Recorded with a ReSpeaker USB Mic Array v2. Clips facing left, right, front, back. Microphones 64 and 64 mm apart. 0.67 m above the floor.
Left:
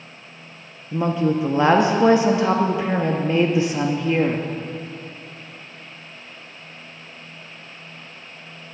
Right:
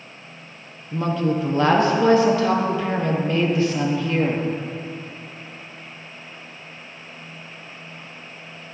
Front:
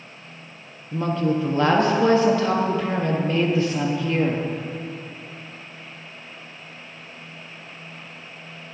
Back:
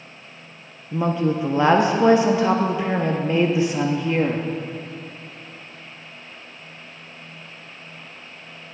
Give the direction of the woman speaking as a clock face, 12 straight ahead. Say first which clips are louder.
Left 2 dB, back 1 dB; 8 o'clock.